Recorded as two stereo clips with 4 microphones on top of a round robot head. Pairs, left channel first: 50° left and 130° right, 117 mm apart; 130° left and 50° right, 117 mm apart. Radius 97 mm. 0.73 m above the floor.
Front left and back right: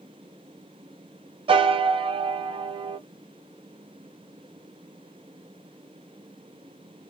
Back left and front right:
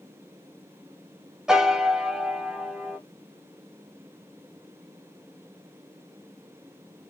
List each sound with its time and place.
1.5 s a piano: 130° right, 0.6 m